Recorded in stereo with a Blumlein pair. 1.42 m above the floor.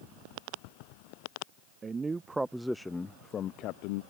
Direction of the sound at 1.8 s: 20° right.